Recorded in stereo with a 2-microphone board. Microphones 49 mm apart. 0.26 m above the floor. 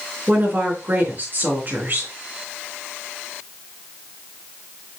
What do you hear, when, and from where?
0.3 s a woman speaking: 40° right (ahead or behind), 4 m